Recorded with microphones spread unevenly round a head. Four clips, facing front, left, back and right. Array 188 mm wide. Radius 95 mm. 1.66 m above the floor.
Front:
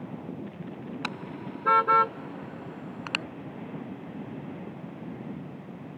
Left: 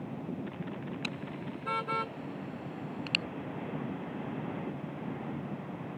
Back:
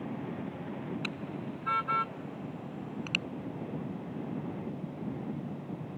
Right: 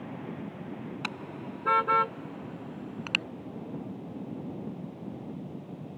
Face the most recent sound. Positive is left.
turn(degrees=-20)